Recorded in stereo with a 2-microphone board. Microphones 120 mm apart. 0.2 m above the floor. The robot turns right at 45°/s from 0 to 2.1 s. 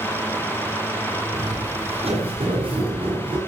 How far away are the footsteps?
About 8 m.